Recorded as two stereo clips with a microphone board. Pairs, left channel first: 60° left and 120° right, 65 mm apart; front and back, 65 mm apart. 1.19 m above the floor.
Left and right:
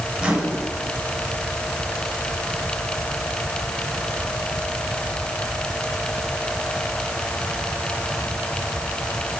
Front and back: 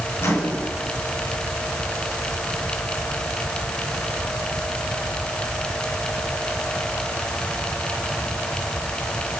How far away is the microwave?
About 5.5 m.